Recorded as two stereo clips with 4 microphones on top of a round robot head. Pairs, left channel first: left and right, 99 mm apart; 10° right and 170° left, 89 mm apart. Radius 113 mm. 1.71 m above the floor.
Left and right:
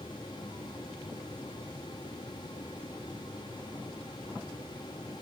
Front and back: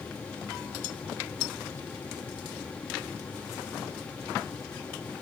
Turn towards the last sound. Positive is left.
No sound to turn to.